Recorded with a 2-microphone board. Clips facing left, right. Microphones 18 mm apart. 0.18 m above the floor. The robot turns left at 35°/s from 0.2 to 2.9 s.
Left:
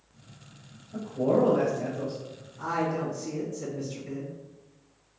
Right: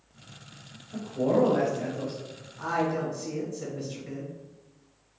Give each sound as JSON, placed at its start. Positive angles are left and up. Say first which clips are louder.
{"t": 0.9, "sound": "a man speaking", "louder": "even", "azimuth_deg": -105, "distance_m": 1.8}
{"t": 2.6, "sound": "a woman speaking", "louder": "right 1 dB", "side_deg": -25, "distance_m": 1.6}